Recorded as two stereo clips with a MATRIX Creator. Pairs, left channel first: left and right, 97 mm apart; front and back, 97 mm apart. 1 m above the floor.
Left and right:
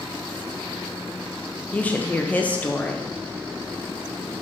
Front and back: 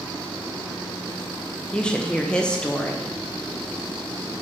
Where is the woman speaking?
55° left, 0.7 m.